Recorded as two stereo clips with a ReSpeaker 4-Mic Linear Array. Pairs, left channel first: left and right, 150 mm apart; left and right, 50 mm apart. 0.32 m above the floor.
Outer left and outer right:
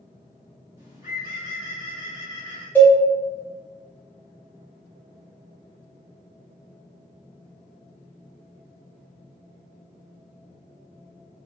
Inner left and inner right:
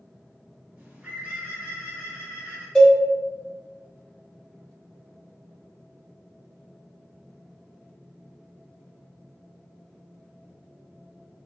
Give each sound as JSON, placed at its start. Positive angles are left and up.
{"t": 0.8, "sound": "a bird", "side_deg": -25, "distance_m": 1.6}
{"t": 2.8, "sound": "a cowbell", "side_deg": 15, "distance_m": 0.9}